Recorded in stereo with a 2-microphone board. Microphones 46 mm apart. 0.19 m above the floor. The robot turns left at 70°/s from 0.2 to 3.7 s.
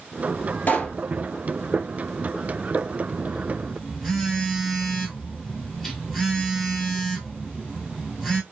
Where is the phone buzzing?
145° right, 1.0 m; by 8.4 s 175° left, 1.0 m.